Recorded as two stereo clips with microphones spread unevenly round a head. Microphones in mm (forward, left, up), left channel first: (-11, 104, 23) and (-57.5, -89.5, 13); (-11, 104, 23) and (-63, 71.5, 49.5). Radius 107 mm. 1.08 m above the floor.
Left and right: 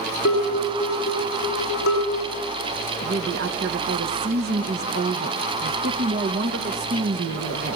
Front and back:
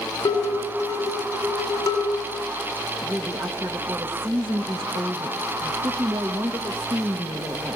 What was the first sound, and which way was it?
Dishes clattering, 25° left.